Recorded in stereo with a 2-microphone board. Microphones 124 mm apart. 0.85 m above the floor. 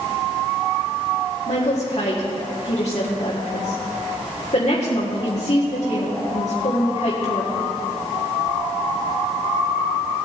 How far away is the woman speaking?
About 1.9 m.